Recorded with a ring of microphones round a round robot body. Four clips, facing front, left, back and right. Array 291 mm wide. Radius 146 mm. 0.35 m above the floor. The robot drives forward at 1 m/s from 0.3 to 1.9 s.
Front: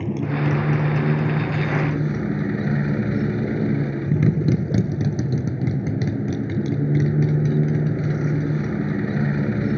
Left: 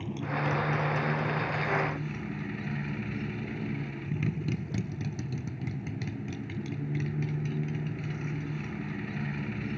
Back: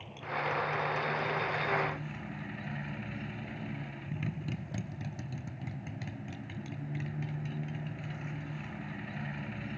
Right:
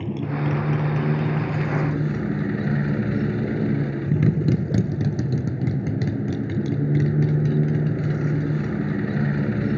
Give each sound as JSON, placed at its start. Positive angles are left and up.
{"t": 0.0, "sound": "a motorcycle", "azimuth_deg": -30}